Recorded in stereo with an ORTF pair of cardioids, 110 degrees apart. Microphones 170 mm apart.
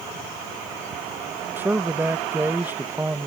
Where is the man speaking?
10° right.